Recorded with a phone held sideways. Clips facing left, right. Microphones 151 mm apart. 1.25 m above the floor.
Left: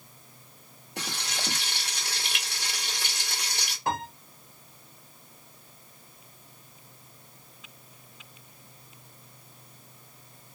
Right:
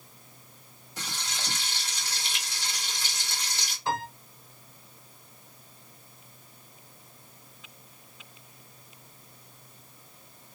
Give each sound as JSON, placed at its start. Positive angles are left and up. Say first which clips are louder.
{"t": 1.0, "sound": "frying", "louder": "left 3 dB", "side_deg": 65, "distance_m": 1.5}
{"t": 3.9, "sound": "a piano", "louder": "even", "side_deg": 55, "distance_m": 1.6}